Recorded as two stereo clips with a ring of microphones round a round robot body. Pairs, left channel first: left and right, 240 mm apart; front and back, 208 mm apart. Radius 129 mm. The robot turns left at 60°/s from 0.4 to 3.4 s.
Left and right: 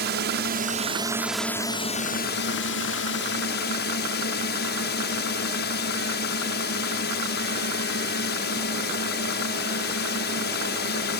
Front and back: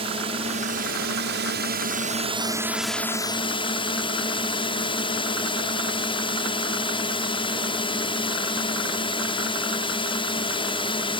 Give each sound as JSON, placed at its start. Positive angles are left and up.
{"t": 0.0, "sound": "a drone", "azimuth_deg": -120}